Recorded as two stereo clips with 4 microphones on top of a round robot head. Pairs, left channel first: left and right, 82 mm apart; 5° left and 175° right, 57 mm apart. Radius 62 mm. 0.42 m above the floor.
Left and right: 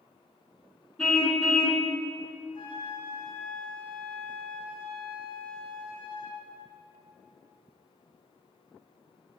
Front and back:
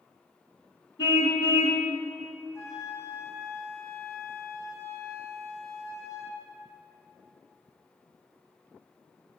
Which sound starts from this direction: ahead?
A car horn, at 1.0 s.